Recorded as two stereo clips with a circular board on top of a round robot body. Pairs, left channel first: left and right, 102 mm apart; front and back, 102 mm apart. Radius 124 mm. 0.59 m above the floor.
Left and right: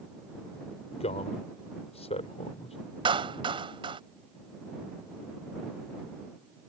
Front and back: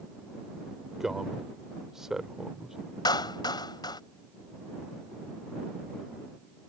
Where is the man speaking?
95° left.